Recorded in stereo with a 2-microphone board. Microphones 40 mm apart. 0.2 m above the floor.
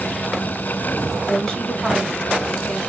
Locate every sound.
1.2 s a woman speaking: 15° left (ahead or behind), 1.6 m